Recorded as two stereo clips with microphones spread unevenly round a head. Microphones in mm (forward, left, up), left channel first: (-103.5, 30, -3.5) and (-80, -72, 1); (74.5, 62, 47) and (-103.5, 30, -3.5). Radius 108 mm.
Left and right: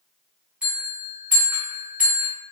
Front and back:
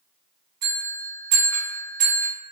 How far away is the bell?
About 1.7 m.